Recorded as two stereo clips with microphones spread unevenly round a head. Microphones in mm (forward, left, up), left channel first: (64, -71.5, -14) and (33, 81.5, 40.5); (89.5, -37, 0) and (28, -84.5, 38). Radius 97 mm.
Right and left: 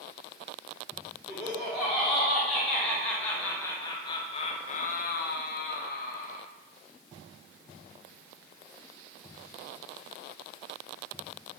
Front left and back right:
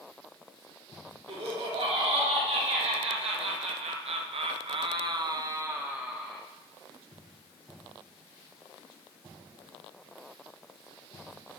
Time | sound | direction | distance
1.3 | laughter | 170° right | 4 m